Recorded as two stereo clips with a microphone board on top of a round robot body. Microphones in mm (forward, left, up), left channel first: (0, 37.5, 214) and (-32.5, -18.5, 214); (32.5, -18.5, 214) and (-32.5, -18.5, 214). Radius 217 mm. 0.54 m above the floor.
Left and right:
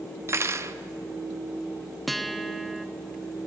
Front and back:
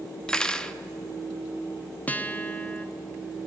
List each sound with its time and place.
0.3 s cutlery clinking: 80° right, 0.8 m
2.1 s a guitar: 30° right, 1.0 m